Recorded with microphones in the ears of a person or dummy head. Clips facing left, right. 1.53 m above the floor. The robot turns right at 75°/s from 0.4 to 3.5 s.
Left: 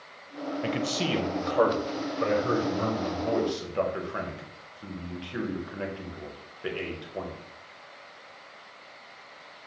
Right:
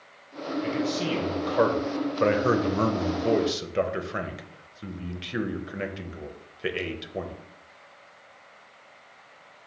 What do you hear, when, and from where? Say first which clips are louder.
0.6 s a man speaking: right 2 dB; 55° left (ahead or behind), 0.5 m; by 7.3 s 25° right (ahead or behind), 0.5 m